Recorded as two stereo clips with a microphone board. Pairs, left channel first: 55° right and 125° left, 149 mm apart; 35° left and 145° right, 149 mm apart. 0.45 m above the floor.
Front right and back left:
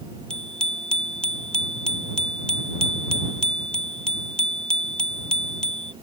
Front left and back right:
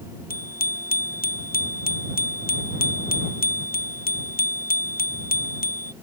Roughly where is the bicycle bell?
Ahead left.